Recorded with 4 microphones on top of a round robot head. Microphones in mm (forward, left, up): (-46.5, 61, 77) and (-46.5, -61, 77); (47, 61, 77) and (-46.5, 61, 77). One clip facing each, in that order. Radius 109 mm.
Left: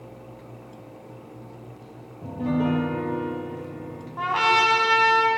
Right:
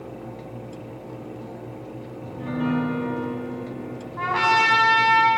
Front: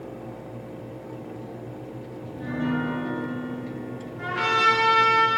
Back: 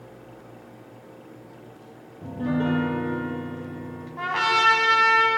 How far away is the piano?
About 4.5 m.